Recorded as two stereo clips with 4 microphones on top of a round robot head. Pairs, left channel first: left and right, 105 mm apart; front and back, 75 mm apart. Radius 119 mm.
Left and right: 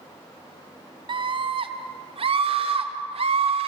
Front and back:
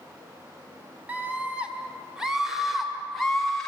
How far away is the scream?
About 2 m.